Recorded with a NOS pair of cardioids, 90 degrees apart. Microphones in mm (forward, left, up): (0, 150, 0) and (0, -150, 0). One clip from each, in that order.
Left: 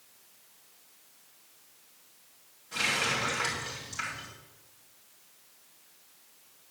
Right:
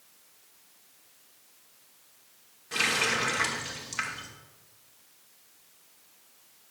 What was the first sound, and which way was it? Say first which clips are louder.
A running tap: right 2 dB; 60° right.